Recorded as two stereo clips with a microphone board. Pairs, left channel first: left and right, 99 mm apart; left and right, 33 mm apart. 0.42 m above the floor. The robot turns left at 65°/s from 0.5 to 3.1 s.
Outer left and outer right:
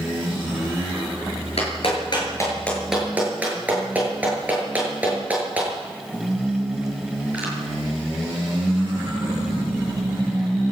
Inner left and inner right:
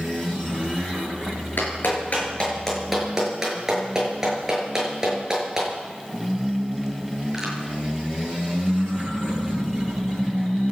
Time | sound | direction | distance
1.6 | a clap | 80° left | 7.5 m